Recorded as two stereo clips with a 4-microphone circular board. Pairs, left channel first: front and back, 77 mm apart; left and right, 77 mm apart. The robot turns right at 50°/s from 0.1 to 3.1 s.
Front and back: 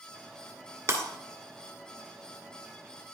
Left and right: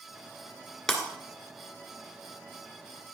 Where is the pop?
I don't hear a pop.